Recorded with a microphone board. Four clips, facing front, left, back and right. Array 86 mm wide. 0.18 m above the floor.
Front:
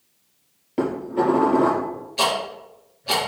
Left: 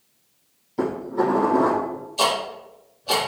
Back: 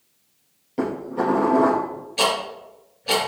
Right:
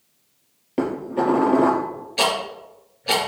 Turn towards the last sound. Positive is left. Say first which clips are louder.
# even, even
turn(degrees=-100)